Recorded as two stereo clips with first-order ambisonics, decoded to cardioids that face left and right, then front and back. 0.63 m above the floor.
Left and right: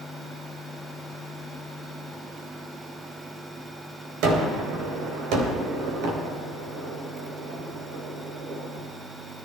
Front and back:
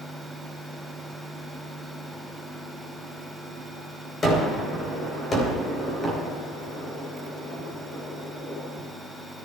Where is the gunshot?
75° right, 3 m.